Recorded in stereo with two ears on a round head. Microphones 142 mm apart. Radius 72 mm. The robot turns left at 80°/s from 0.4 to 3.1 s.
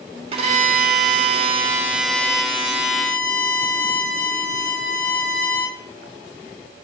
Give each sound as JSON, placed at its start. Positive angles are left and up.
{"t": 0.3, "sound": "a violin", "azimuth_deg": -45, "distance_m": 1.5}